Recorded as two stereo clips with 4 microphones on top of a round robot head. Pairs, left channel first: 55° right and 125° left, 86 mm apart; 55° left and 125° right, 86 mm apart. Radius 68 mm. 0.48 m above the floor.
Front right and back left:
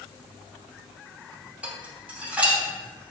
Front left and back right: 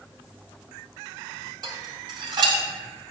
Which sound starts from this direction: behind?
Dishes clattering, at 1.6 s.